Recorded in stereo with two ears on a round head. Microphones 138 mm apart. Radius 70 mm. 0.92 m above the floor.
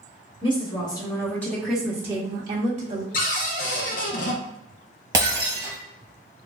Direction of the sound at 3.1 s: 55° left (ahead or behind).